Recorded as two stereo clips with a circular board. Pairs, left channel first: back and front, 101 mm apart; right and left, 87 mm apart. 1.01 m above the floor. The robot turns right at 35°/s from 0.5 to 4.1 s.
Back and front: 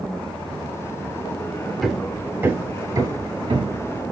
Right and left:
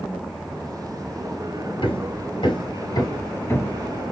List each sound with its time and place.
1.8 s hammering: 90° right, 3 m; by 4.0 s 15° right, 3 m